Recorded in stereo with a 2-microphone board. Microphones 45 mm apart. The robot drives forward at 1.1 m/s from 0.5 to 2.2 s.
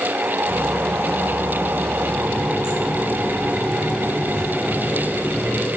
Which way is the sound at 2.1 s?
55° left (ahead or behind).